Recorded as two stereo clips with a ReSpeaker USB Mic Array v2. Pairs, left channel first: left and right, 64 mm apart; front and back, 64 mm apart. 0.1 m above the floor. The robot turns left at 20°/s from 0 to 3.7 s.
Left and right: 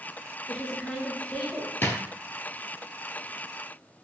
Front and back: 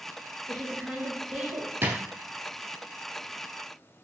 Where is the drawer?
135° left, 0.5 m; by 2.0 s 130° left, 0.5 m.